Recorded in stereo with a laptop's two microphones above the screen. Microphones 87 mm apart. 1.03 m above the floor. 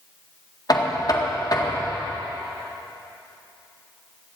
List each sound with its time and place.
0.7 s knocking: 50° left (ahead or behind), 1.7 m